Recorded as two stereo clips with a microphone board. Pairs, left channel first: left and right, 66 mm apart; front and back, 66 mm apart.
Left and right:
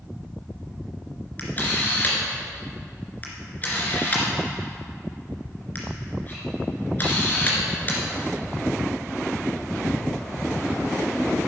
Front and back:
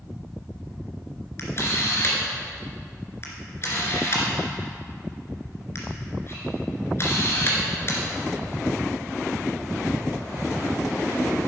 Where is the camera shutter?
35° left, 2.5 m.